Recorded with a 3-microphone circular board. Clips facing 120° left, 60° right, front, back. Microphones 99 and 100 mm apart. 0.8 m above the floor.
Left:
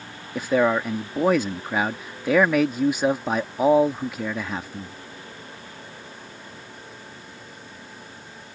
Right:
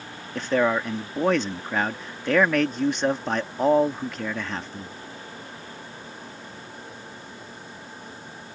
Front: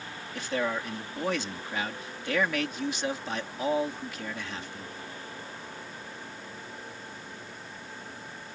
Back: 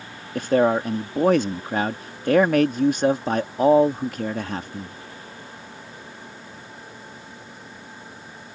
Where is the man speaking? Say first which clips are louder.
Left 2 dB, back 12 dB; 160° right.